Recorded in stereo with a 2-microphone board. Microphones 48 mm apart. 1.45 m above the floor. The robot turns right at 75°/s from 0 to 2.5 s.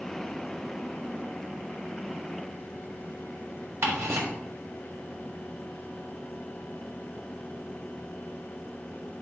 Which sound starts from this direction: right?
Ticking, at 3.8 s.